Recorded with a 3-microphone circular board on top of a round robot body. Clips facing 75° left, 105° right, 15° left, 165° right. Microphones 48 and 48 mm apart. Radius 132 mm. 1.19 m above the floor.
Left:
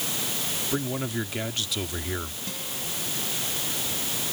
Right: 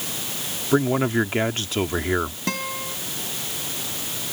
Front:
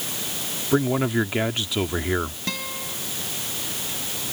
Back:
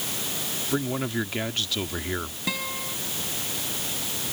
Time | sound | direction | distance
0.7 | a man speaking | 55° right | ?
2.5 | a guitar | 80° right | ?